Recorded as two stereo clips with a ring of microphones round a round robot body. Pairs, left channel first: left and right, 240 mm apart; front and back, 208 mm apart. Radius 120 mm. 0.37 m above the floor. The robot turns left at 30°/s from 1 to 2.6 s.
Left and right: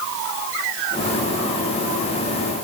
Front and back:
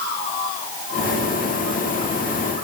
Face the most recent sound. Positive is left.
No sound to turn to.